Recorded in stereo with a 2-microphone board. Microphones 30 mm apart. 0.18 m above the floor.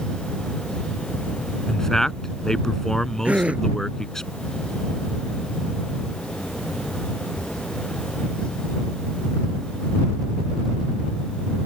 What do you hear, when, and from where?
1.7 s a man speaking: 20° left (ahead or behind)
3.2 s a gasp: 55° right (ahead or behind)